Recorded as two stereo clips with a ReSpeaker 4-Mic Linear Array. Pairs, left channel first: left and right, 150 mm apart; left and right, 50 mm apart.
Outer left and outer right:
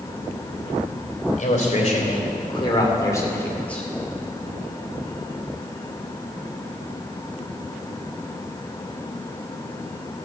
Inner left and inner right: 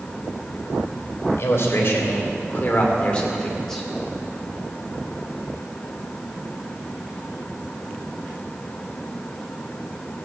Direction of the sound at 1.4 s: 55° left (ahead or behind).